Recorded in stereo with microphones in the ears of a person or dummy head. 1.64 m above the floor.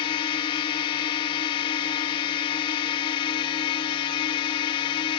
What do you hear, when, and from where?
0.0 s a drone: 25° left (ahead or behind)